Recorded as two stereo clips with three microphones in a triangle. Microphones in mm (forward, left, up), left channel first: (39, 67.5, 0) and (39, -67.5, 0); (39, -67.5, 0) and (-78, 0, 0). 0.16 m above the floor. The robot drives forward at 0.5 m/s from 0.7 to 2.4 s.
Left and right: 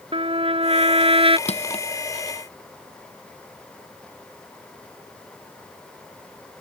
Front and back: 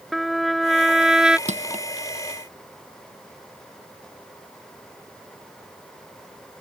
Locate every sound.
0.1 s a trumpet: 120° right; by 1.4 s 130° right
1.5 s crushing: 125° left